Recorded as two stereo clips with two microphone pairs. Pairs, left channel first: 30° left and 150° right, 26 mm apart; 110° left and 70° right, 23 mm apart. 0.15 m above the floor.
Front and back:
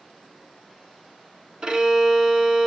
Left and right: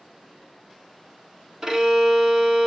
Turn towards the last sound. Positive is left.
turn(degrees=-115)